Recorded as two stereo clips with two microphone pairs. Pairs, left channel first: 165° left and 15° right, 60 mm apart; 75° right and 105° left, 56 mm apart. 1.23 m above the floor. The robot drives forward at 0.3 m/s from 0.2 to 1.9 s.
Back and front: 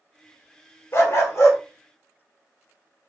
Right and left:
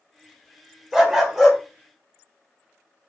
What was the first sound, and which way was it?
A dog barking, straight behind.